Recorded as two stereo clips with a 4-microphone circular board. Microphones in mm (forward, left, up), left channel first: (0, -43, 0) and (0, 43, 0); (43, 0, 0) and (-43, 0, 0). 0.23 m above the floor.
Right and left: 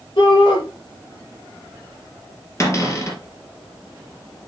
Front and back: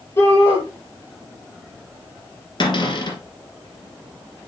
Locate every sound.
0.2 s a shout: 60° right, 5 m
2.6 s a cupboard door: 35° right, 3 m